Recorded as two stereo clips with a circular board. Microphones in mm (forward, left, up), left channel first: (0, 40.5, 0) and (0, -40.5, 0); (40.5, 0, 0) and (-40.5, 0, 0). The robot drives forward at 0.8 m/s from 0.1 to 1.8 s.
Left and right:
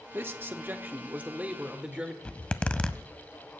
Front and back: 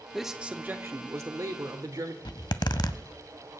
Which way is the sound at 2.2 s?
15° left.